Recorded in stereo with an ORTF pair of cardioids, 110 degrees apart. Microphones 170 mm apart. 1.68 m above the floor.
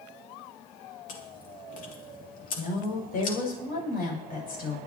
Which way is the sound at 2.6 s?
60° left.